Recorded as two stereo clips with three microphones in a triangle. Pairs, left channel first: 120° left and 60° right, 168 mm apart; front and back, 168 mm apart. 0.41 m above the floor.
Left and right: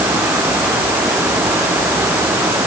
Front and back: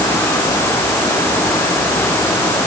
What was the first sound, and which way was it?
Only background noise.